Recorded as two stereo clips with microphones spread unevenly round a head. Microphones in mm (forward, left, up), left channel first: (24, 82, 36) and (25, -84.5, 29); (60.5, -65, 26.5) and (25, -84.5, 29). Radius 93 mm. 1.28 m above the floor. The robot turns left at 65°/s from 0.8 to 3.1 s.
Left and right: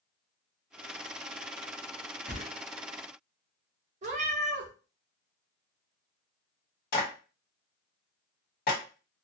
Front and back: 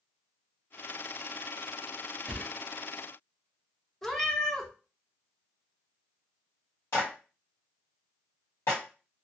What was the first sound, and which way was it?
A whoosh, 170° right.